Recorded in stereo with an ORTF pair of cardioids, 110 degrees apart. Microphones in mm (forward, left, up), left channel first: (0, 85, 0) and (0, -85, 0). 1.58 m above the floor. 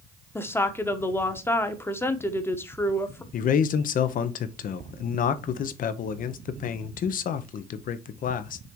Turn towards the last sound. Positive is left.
turn(degrees=55)